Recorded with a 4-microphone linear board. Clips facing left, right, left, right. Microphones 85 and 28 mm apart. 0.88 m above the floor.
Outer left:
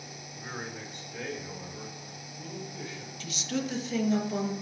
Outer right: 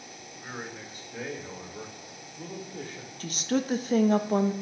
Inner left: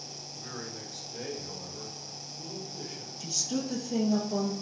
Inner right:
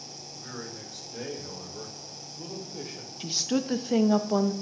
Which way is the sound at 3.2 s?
45° right (ahead or behind).